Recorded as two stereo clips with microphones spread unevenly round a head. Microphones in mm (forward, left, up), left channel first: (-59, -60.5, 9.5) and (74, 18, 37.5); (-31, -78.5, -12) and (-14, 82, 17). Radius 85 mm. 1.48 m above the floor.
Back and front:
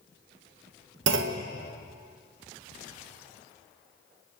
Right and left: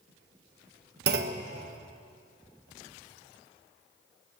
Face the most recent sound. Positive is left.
turn(degrees=50)